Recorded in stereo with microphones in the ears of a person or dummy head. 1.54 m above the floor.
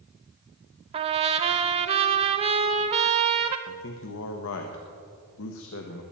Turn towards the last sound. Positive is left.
turn(degrees=70)  # may be behind; listen again after turning